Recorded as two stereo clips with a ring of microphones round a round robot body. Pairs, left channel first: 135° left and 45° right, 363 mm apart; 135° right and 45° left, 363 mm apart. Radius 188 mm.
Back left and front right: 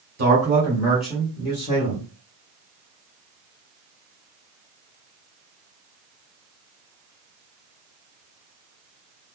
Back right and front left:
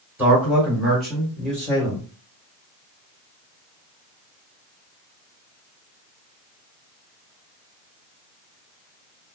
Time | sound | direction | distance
0.2 | a man speaking | 35° right | 1.5 m